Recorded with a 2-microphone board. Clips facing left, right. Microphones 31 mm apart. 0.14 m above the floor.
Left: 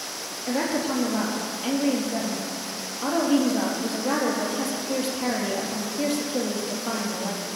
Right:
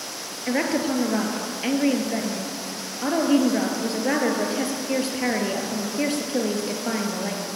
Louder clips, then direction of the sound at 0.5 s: Right 2 dB; 45° right (ahead or behind).